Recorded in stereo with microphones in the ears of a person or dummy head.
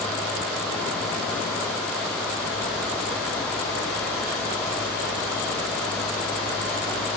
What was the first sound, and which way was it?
Only background noise.